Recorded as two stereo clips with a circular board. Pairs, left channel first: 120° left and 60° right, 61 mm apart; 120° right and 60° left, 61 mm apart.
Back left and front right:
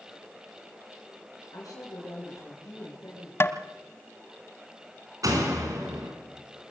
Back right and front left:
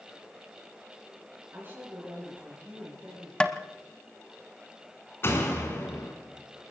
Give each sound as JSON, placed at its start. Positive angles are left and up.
{"t": 1.5, "sound": "a woman speaking", "azimuth_deg": 115, "distance_m": 6.0}
{"t": 3.4, "sound": "tapping", "azimuth_deg": 165, "distance_m": 0.8}
{"t": 5.2, "sound": "a door slam", "azimuth_deg": -70, "distance_m": 3.5}